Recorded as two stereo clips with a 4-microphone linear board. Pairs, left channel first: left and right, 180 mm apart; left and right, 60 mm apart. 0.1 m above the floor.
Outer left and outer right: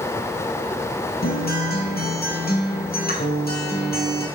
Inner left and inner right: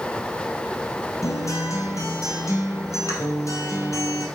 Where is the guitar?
60° left (ahead or behind), 2 m.